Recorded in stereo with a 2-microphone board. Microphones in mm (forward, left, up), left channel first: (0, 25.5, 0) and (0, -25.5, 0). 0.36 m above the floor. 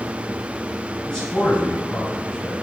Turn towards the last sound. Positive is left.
turn(degrees=20)  # may be behind; listen again after turning